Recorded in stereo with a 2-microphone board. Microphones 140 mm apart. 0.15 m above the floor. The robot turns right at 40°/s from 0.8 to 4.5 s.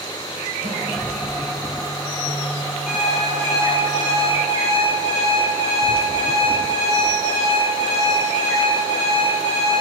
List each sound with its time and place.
0.6 s a snare drum: 75° right (ahead or behind), 1.7 m
2.9 s an alarm clock: 5° right, 1.4 m; by 9.8 s 60° left, 1.4 m